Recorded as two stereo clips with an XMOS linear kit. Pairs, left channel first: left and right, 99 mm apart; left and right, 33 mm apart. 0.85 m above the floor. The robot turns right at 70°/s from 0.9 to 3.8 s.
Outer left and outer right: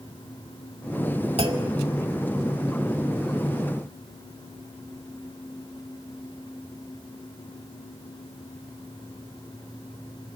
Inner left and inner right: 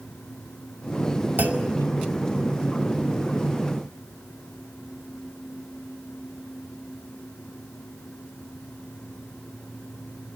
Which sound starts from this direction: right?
A clunk, at 1.4 s.